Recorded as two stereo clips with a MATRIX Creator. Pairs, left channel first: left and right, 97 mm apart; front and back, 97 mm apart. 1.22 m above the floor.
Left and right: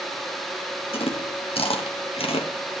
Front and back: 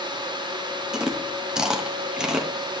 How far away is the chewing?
About 1.5 m.